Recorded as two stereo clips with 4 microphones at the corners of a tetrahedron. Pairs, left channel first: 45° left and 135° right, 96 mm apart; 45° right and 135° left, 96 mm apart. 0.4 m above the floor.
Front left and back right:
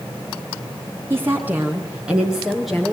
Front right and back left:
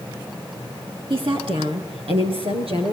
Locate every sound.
1.1 s a woman speaking: 160° left, 4 m; by 2.9 s 135° left, 5.5 m